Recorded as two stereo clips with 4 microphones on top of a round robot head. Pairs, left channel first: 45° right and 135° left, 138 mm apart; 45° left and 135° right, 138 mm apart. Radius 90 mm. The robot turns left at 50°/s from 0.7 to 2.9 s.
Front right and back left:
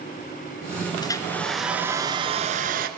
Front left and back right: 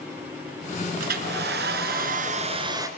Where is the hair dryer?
110° right, 2 m; by 2.9 s 155° left, 2 m.